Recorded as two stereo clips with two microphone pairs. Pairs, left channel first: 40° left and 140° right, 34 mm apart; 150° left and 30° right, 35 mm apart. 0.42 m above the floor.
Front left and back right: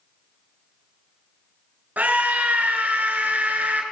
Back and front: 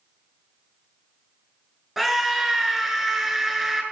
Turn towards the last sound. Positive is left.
turn(degrees=-120)